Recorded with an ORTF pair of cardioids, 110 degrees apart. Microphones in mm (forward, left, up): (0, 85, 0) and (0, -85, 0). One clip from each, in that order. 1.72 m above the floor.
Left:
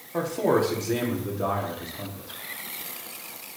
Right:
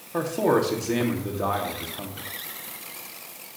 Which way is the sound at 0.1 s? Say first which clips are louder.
Right 1 dB; 15° right.